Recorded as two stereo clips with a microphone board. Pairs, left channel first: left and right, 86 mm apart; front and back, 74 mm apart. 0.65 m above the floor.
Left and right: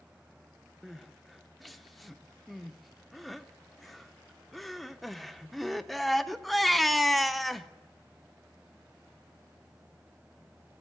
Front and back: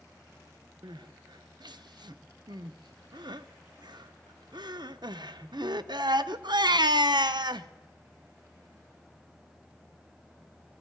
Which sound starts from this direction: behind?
Crying, at 0.8 s.